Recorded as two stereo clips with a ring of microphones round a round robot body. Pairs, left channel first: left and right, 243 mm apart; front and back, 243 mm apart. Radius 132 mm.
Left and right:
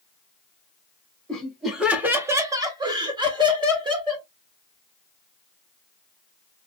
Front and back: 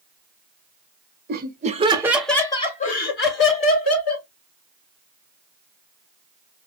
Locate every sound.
1.3 s laughter: 175° left, 0.8 m; by 4.3 s 20° right, 1.3 m